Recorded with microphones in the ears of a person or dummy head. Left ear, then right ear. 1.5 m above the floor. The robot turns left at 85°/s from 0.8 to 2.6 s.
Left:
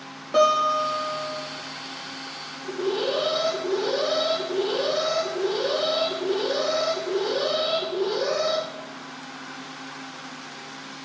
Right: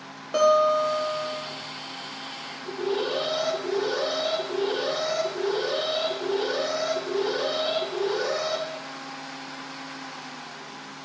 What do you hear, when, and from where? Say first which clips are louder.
0.3 s a guitar: even; 10° right, 1.5 m; by 1.4 s 65° right, 1.5 m
2.6 s an alarm: left 2 dB; 55° right (ahead or behind), 2.5 m